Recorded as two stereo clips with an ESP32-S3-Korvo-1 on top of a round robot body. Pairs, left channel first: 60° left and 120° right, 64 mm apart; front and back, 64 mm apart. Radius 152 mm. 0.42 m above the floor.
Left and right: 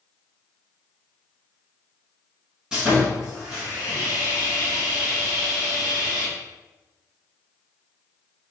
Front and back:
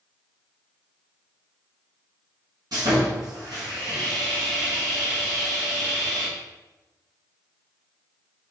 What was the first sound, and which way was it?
Sawing, 160° left.